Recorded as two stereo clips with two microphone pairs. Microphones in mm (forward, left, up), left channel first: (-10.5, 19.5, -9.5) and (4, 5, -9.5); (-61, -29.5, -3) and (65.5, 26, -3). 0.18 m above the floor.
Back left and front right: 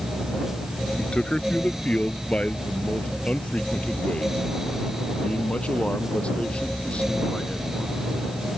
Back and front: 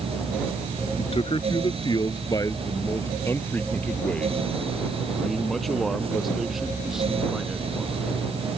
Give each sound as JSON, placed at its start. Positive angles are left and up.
{"t": 1.0, "sound": "a man speaking", "azimuth_deg": 165}